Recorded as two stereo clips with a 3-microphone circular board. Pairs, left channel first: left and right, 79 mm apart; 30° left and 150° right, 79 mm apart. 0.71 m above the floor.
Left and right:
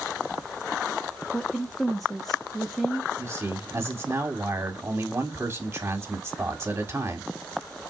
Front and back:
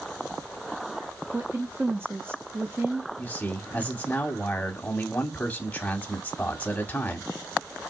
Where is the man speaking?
35° right, 1.3 m.